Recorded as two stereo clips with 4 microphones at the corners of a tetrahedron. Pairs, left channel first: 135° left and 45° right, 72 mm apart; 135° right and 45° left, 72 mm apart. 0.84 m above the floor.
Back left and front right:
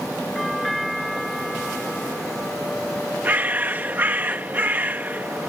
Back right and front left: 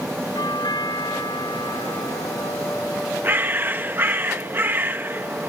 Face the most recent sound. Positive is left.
turn(degrees=5)